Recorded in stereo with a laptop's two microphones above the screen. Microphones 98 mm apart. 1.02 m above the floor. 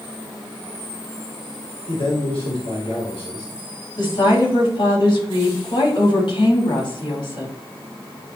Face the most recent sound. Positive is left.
turn(degrees=50)  # may be behind; listen again after turning